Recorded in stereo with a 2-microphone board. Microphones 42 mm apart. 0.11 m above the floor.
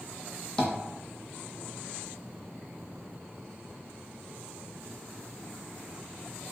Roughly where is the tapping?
Left.